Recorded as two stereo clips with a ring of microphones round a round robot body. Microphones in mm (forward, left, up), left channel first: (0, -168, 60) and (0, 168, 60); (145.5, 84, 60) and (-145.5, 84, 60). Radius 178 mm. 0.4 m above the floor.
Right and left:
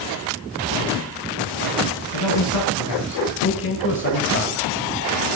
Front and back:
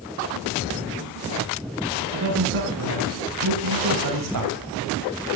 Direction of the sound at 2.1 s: 125° right.